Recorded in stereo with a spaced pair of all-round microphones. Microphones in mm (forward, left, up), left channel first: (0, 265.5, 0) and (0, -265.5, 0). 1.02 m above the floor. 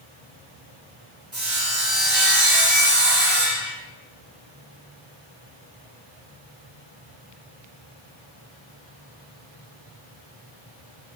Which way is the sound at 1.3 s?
35° right (ahead or behind).